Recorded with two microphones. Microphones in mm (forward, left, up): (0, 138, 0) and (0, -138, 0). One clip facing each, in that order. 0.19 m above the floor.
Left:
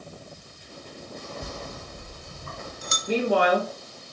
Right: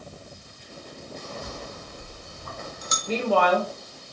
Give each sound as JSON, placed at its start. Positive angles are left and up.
{"t": 1.4, "sound": "a bell", "side_deg": 35, "distance_m": 1.2}
{"t": 3.1, "sound": "a woman speaking", "side_deg": 15, "distance_m": 2.0}